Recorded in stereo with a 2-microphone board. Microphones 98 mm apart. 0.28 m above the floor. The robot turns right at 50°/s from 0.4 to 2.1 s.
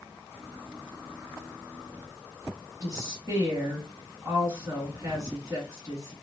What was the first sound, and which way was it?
A woman speaking, 35° right (ahead or behind).